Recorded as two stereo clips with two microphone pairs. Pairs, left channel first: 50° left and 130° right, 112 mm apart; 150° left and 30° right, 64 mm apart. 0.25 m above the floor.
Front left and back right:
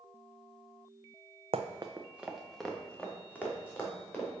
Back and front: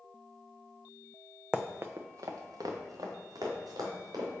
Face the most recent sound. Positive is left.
turn(degrees=-20)